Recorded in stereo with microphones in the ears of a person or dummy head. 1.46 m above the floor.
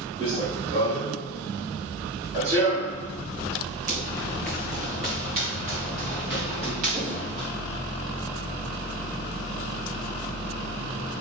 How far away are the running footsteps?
About 2 m.